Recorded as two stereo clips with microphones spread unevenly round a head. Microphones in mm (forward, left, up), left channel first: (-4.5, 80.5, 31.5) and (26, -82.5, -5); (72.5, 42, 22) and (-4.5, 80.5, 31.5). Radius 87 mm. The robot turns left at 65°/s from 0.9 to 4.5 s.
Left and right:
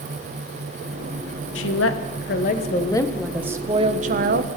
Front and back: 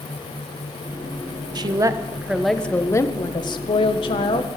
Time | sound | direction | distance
1.6 | a woman speaking | 120° left | 1.2 m